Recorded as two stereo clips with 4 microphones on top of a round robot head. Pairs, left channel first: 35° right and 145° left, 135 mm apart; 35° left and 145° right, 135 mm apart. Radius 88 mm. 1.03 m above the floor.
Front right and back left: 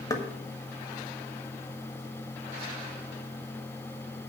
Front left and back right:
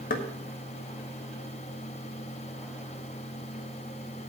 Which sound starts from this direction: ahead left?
Knocking, at 0.1 s.